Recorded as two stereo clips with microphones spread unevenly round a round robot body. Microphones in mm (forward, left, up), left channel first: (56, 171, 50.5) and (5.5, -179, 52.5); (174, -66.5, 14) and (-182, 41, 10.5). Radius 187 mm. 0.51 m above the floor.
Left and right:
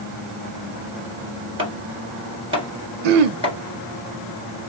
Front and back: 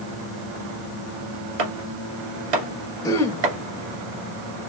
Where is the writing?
I don't hear writing.